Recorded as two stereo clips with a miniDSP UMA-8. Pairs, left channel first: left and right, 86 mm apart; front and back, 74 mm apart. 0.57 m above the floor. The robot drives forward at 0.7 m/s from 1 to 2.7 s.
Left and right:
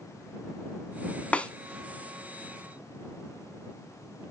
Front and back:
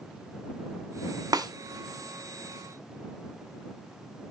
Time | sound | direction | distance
1.3 | a snare drum | 165° left | 0.7 m